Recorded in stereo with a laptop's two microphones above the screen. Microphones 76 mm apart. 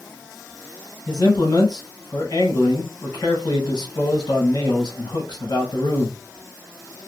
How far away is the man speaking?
About 1.1 m.